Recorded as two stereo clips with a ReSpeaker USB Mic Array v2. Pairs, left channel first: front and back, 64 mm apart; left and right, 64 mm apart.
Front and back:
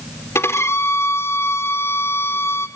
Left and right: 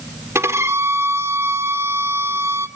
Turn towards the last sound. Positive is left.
turn(degrees=-45)